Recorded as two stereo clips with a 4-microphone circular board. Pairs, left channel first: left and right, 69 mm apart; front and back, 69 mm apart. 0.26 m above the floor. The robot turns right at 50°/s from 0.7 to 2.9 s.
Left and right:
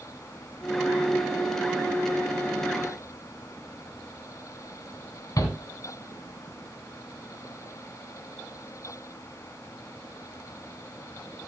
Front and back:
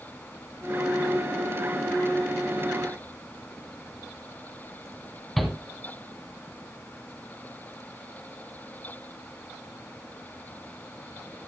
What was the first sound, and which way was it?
A shout, 90° left.